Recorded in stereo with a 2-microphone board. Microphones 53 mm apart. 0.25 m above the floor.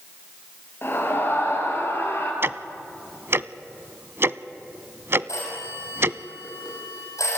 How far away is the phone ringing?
About 6 m.